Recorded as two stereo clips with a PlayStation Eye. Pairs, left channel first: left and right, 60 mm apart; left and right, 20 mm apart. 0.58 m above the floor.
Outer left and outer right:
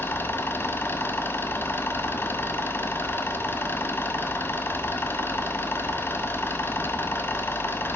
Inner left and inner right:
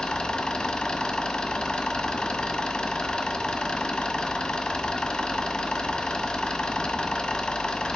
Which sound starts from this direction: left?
An engine running, at 0.0 s.